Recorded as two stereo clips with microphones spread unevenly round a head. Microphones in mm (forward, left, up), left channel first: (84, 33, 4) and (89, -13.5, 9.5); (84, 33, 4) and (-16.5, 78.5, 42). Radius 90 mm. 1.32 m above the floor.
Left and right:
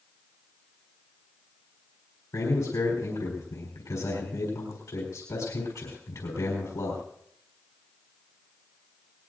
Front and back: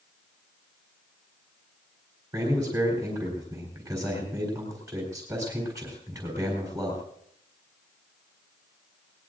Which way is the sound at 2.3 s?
90° left.